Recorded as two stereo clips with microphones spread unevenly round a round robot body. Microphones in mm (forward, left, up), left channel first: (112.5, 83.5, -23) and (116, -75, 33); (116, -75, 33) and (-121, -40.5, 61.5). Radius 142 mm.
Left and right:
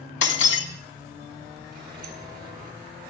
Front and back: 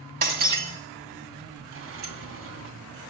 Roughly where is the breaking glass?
Left.